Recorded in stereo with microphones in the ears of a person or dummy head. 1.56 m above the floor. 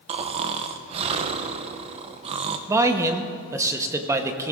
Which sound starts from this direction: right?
Snoring, at 0.1 s.